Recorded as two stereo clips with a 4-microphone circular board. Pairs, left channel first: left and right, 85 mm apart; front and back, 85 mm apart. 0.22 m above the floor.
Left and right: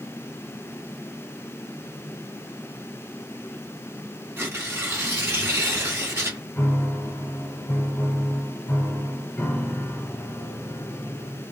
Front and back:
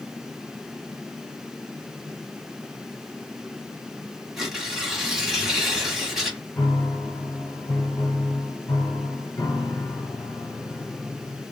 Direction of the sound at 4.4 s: 100° right.